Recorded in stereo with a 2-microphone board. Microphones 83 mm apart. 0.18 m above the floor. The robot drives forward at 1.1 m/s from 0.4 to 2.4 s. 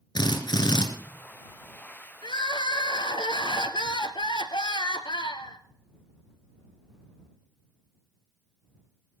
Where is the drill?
55° left (ahead or behind), 2 m; by 0.9 s 60° left (ahead or behind), 1.9 m.